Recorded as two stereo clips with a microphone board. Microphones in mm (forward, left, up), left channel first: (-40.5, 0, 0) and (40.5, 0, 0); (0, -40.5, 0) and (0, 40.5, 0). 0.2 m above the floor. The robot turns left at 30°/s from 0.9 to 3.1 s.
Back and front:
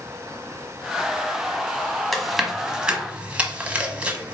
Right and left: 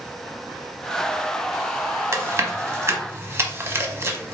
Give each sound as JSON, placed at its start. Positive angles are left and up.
{"t": 2.1, "sound": "chewing", "azimuth_deg": 90, "distance_m": 0.9}